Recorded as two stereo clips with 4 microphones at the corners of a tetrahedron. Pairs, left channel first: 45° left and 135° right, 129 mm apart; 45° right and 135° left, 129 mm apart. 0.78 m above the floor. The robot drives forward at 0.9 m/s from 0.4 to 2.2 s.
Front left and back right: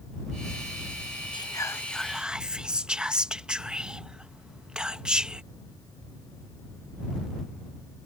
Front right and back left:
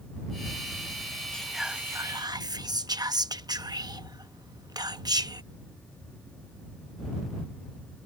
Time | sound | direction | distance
1.3 | whispering | 30° left | ?